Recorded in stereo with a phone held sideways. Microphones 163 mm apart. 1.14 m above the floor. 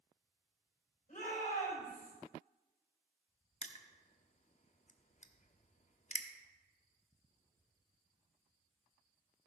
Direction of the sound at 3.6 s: 50° left (ahead or behind).